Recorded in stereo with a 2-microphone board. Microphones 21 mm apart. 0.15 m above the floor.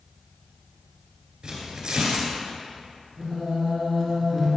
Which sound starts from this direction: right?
Tearing paper, at 1.4 s.